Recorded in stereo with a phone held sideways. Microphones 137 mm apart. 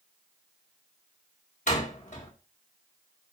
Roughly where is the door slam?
Left.